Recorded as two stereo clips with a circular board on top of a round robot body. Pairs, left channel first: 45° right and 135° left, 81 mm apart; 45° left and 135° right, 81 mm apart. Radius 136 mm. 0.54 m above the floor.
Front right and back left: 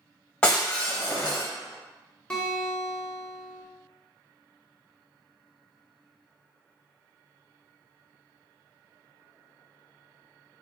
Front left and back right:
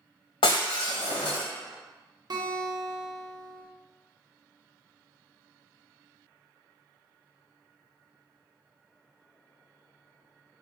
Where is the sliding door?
No sliding door in this recording.